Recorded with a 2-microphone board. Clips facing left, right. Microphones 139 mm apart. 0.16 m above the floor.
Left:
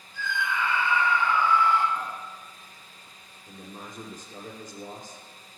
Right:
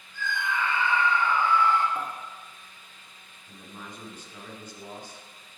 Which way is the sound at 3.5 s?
45° left (ahead or behind).